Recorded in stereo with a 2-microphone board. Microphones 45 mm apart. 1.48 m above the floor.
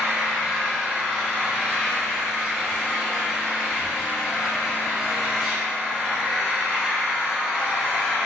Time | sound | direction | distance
0.0 | an engine running | 15° right (ahead or behind) | 0.9 m